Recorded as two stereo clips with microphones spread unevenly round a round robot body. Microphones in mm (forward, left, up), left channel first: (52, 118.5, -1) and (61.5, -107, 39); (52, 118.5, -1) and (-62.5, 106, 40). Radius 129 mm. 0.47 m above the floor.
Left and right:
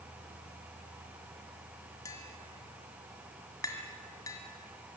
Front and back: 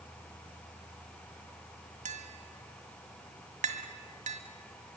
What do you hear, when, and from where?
2.0 s tapping: 170° left, 2.0 m